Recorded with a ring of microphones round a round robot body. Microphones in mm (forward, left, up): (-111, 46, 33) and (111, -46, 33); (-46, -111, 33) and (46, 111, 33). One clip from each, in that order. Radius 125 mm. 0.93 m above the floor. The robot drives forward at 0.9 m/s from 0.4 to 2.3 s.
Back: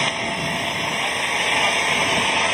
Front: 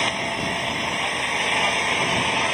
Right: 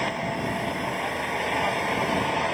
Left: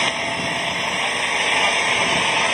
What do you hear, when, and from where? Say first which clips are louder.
0.0 s an engine running: back 1 dB, left 6 dB; 75° left; by 2.5 s 80° left